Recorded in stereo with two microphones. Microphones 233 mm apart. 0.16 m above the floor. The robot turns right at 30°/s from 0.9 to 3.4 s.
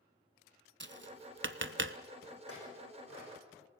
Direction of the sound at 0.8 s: 50° right (ahead or behind).